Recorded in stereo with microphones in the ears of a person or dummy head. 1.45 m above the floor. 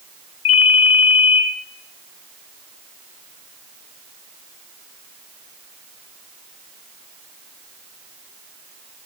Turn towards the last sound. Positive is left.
turn(degrees=75)  # may be behind; listen again after turning